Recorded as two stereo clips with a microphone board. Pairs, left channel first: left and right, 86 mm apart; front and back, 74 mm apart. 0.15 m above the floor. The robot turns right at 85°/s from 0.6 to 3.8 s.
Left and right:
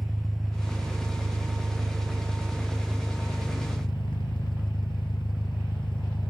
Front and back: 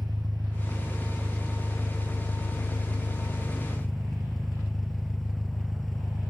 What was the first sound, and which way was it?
An engine running, 175° left.